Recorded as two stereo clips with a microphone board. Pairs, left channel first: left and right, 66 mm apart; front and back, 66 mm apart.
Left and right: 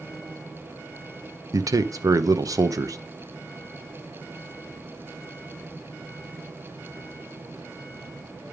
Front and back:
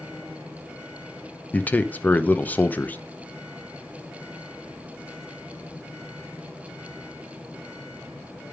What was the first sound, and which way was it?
A man speaking, 65° right.